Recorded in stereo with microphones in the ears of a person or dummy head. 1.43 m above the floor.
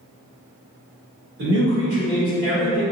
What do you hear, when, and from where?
1.4 s a man speaking: 50° right (ahead or behind), 1.9 m